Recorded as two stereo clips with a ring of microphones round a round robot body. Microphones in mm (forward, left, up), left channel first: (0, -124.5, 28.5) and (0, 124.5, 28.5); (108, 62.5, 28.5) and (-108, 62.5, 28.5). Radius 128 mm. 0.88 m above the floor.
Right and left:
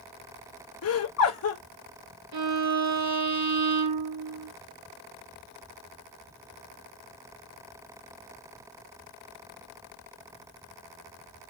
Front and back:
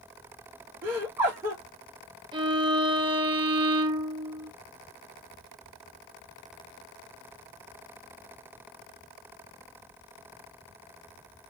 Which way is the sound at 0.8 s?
100° right.